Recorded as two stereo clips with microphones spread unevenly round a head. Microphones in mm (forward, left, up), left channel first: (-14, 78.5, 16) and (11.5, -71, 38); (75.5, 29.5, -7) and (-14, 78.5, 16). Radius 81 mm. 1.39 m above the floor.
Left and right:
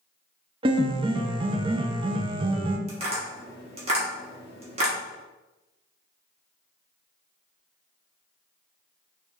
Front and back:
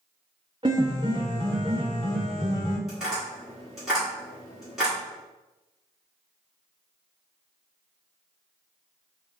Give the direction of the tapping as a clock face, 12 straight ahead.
4 o'clock.